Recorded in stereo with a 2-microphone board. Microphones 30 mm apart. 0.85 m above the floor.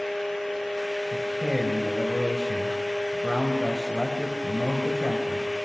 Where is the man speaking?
Centre (ahead or behind), 4 m.